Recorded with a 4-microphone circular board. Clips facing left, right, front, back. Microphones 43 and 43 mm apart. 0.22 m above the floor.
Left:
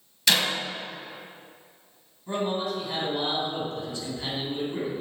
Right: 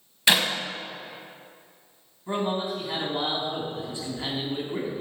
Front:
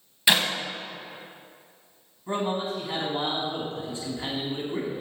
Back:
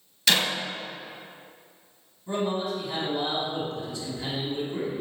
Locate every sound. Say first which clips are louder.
0.3 s a clap: right 2 dB, front 1 dB; 45° right, 1.3 m
2.3 s a man speaking: right 1 dB, even; 35° right, 1.9 m